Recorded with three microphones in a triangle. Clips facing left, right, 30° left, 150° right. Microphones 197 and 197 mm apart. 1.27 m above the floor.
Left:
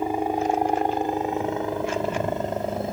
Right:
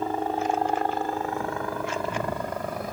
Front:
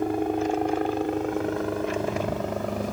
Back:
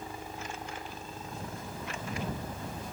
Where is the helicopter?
15° left; by 2.9 s 25° left.